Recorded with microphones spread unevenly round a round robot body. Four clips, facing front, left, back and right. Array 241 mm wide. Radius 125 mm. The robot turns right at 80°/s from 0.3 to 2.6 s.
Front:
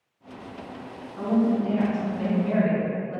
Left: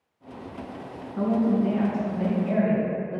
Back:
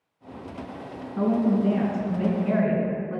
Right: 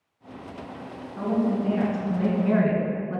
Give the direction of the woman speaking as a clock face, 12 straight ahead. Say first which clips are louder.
Left 2 dB, back 1 dB; 7 o'clock.